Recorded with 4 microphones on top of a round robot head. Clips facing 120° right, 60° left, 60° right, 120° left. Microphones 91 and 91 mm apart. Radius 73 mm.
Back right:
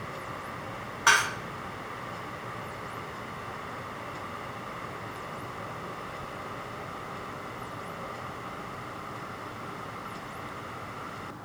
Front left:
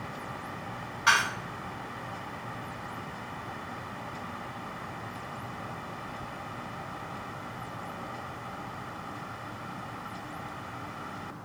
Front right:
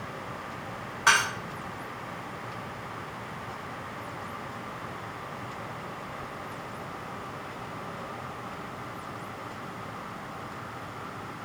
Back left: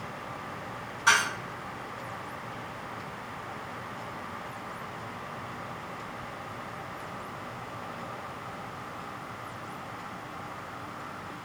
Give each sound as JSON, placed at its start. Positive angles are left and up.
{"t": 1.1, "sound": "dishes clattering", "azimuth_deg": -75, "distance_m": 0.6}